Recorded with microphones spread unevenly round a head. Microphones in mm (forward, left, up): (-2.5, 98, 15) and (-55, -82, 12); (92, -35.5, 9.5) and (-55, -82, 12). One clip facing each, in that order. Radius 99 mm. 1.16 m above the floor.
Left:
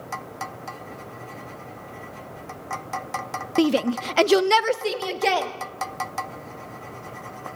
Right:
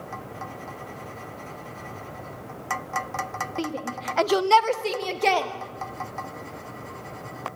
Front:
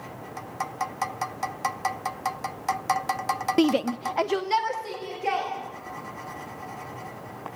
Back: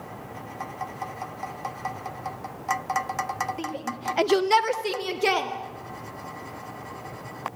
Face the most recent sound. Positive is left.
turn(degrees=160)